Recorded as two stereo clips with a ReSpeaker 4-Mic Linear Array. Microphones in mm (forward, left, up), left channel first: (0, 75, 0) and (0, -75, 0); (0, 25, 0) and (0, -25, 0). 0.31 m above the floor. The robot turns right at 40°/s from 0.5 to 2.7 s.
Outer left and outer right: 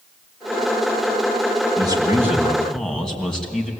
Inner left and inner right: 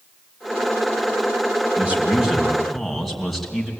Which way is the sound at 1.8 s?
35° right.